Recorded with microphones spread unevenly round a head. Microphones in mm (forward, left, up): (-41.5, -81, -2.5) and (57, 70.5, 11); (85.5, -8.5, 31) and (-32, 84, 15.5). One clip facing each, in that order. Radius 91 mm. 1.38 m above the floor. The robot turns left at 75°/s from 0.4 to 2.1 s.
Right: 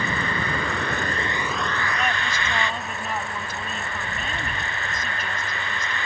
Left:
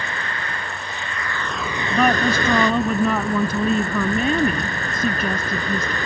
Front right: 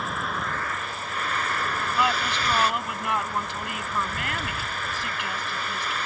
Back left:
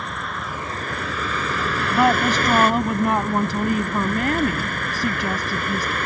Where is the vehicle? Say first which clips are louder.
Right 4 dB, even; 125° right; by 6.0 s 105° left.